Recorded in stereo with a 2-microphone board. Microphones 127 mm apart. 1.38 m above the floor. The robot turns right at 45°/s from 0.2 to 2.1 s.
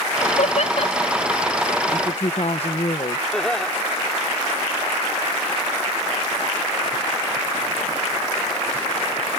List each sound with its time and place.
0.2 s laughter: 80° left; by 1.1 s 40° left (ahead or behind)
1.9 s a woman speaking: 40° left (ahead or behind); by 3.2 s 50° left (ahead or behind)
3.3 s laughter: 5° left (ahead or behind)